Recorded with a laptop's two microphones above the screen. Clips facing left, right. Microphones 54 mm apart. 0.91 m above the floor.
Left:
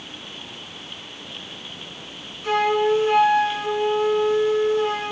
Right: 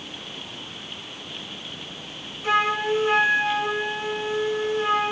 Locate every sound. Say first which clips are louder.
2.4 s a flute: left 3 dB; 10° right (ahead or behind), 3 m